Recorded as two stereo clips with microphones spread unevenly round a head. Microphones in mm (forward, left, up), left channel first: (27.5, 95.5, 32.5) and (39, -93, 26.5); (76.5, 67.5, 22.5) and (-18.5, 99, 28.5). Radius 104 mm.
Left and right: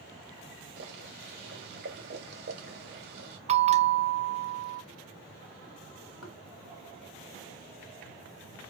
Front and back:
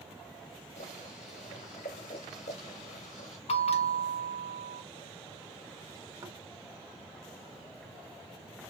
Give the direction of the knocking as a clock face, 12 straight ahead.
9 o'clock.